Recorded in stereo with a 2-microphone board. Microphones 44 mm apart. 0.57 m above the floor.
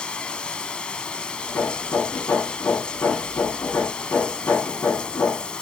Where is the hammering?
85° left, 8 m.